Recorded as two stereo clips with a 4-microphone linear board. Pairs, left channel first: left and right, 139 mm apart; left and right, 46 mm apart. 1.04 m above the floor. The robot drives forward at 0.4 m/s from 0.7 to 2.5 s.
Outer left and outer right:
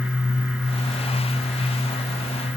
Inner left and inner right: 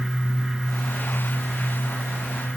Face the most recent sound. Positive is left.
No sound to turn to.